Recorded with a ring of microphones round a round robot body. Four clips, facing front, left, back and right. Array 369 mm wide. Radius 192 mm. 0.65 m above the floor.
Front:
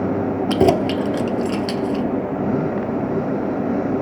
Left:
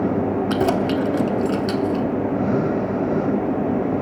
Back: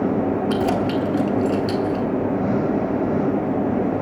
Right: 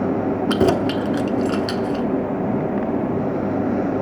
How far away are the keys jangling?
About 1.1 m.